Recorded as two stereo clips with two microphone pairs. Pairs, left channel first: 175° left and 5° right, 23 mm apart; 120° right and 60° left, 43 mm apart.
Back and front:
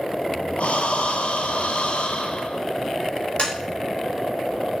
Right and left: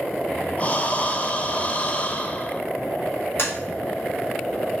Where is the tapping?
145° right, 3 m.